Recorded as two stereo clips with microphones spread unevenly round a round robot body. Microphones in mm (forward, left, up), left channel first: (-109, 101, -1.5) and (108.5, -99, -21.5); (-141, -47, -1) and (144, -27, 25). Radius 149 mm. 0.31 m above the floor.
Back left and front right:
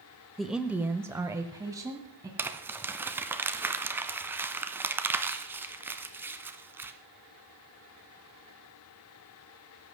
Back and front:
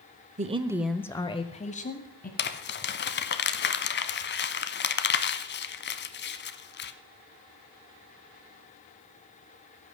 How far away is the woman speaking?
About 0.9 m.